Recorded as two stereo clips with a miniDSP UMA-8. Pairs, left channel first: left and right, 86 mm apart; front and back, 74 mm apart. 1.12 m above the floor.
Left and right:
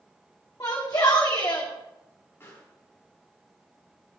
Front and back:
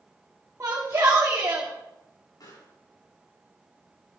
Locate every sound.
0.6 s a shout: 135° left, 2 m
2.4 s a pop: 25° left, 7.5 m